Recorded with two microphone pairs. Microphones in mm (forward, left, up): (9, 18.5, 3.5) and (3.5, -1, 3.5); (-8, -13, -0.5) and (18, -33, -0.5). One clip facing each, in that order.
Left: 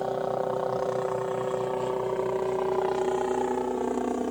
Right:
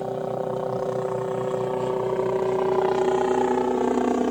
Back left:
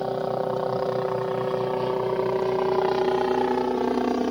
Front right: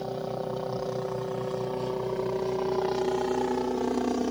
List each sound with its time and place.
0.0 s a helicopter: 130° left; by 4.3 s 150° right